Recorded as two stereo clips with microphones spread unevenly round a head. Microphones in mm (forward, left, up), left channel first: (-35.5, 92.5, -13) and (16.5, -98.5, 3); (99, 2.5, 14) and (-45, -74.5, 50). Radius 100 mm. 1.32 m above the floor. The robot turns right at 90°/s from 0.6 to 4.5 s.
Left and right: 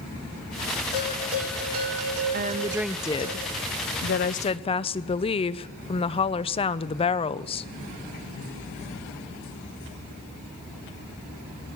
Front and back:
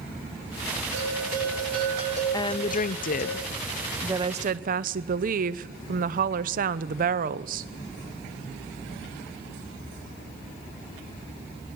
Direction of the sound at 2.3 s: 30° right.